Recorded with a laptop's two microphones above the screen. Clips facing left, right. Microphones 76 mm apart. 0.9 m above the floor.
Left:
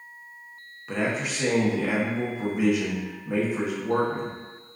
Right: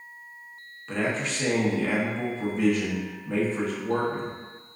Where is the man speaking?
10° left (ahead or behind), 0.7 m.